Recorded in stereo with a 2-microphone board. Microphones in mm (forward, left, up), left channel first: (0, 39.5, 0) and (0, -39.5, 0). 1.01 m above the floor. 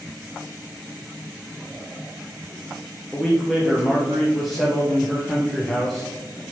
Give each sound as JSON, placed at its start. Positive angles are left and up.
{"t": 3.1, "sound": "a man speaking", "side_deg": 0, "distance_m": 0.6}